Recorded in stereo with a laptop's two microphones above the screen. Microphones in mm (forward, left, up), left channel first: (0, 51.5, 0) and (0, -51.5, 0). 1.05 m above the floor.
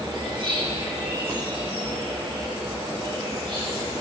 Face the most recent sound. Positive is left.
turn(degrees=-55)  # may be behind; listen again after turning